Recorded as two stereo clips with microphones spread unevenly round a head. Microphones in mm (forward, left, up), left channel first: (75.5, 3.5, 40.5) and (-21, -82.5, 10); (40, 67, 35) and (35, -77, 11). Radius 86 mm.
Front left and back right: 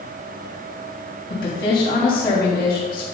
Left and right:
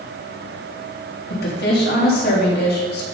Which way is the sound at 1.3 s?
80° left.